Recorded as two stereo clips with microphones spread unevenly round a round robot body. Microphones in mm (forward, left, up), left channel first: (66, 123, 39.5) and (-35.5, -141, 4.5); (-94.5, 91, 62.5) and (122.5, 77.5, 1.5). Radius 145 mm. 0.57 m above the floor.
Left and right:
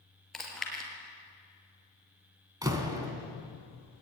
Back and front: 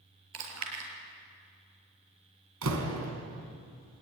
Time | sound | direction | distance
0.3 | chewing | 20° right | 5.5 m
2.6 | a door slam | 30° right | 3.5 m